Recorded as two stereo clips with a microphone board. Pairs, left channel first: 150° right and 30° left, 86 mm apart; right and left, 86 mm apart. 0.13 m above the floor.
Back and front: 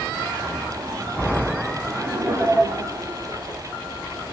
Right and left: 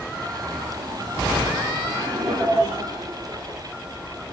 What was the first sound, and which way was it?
Laughter, 70° left.